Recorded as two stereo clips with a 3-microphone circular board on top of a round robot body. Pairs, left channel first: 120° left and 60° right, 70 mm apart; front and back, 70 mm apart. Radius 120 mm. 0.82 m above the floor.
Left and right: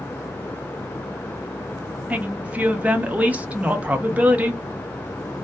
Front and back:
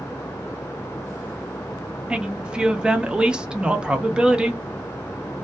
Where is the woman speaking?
115° right, 0.7 m.